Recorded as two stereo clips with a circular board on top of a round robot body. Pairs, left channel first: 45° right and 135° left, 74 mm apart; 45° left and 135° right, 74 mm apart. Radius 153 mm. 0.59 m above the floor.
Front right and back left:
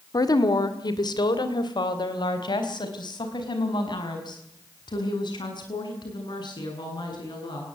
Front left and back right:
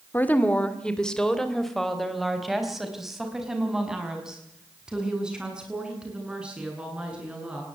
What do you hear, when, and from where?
0.1 s a woman speaking: 20° right, 2 m; by 7.7 s 60° right, 10.5 m